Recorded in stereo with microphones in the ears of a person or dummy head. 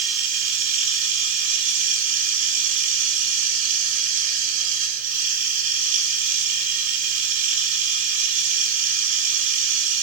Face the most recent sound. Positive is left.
turn(degrees=-50)  # may be behind; listen again after turning